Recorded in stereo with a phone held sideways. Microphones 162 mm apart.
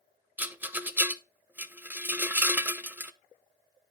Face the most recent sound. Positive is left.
turn(degrees=-10)  # may be behind; listen again after turning